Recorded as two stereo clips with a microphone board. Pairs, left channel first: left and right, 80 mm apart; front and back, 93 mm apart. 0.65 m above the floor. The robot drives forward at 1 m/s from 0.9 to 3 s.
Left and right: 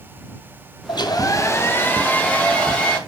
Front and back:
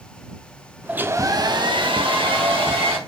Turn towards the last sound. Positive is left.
turn(degrees=165)